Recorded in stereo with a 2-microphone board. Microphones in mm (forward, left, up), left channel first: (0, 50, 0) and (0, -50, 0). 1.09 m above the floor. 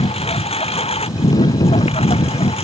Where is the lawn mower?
85° left.